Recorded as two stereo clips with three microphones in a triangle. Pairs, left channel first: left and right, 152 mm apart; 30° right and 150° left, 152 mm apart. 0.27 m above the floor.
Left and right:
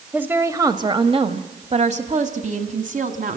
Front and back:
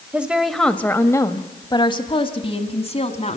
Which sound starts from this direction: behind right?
A woman speaking, at 0.1 s.